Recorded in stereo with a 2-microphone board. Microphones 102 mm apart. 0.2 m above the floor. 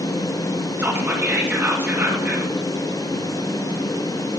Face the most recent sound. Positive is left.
turn(degrees=-20)  # may be behind; listen again after turning